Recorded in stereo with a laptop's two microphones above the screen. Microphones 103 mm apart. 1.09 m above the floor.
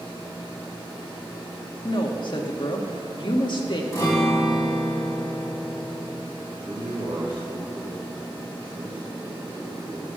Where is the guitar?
30° left (ahead or behind), 3 m.